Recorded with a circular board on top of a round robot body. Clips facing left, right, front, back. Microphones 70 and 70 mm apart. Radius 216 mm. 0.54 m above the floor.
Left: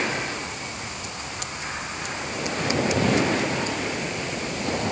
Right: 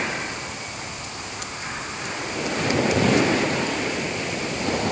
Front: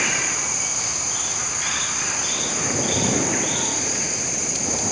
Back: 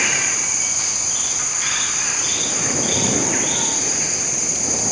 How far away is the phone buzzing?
I don't hear a phone buzzing.